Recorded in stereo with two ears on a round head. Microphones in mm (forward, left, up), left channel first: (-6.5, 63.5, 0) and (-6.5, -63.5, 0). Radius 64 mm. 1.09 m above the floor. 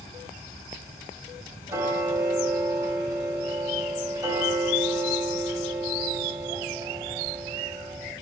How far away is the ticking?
About 1.8 m.